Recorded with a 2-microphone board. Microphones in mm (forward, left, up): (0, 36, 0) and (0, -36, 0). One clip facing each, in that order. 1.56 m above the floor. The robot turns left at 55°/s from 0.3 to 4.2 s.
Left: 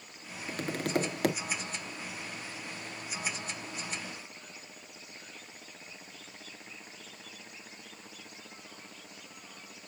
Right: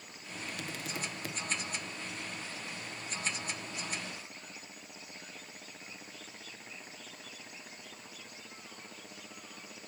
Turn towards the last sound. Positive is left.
turn(degrees=-60)